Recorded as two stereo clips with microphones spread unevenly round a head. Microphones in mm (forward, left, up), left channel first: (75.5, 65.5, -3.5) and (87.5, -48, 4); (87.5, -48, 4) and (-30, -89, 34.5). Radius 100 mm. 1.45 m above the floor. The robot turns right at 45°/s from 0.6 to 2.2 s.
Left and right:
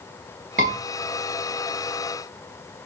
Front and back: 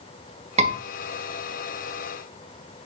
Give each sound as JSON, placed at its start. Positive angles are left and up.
{"t": 0.6, "sound": "a scream", "azimuth_deg": -135, "distance_m": 2.5}